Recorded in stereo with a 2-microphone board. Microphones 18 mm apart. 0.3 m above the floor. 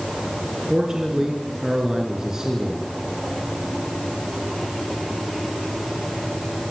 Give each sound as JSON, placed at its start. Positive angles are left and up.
{"t": 0.7, "sound": "a man speaking", "side_deg": -35, "distance_m": 3.5}